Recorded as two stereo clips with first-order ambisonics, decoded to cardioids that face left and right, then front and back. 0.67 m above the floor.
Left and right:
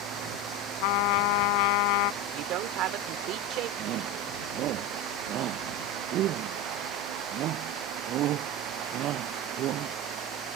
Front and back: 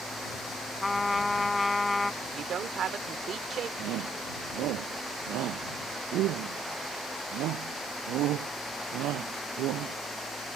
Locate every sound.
0.8 s a trumpet: 80° left
2.2 s a woman speaking: 125° right
3.8 s a shout: 140° right